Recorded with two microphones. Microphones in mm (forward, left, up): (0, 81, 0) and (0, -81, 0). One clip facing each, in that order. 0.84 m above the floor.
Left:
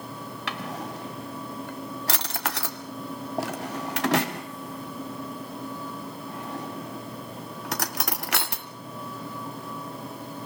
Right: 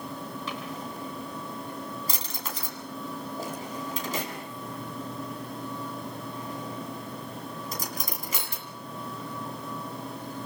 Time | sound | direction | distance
0.5 | a drawer | 75° left (ahead or behind) | 2.5 m